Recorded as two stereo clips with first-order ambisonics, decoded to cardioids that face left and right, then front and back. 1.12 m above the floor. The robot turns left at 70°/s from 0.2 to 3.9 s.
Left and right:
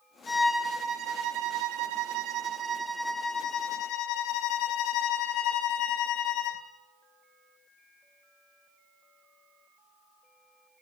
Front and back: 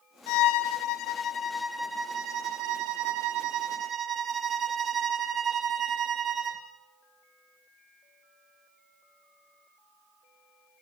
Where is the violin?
15° left, 1.9 m; by 6.6 s 120° left, 1.9 m.